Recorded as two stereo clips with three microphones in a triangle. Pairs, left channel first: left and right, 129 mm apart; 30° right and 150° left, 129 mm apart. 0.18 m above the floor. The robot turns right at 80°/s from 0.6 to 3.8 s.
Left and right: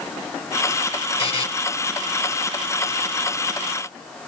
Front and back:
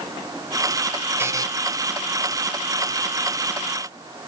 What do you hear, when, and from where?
1.2 s a buzzer: 85° left, 1.0 m; by 1.5 s 105° left, 1.0 m